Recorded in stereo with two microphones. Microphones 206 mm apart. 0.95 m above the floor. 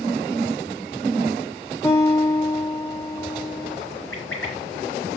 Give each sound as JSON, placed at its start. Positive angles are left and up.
{"t": 1.8, "sound": "a guitar", "side_deg": 15, "distance_m": 6.5}
{"t": 4.1, "sound": "a bird", "side_deg": 85, "distance_m": 6.0}